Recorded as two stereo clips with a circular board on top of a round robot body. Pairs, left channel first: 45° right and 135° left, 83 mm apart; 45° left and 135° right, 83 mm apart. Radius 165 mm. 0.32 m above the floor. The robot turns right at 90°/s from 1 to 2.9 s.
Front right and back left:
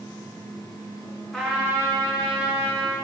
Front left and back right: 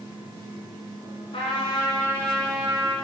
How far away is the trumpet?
About 1.5 m.